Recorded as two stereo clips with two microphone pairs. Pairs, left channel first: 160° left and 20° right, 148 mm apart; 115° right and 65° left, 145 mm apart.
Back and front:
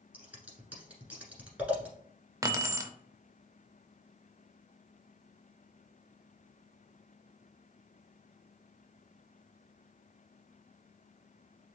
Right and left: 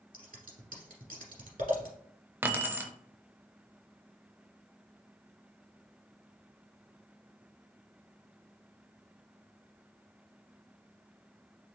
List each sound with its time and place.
0.1 s scissors: 55° left, 1.4 m
2.4 s keys jangling: 10° left, 0.5 m